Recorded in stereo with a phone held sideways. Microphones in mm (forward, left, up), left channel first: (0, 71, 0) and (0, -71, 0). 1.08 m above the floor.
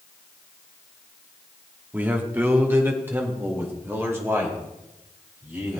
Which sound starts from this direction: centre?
A man speaking, at 1.9 s.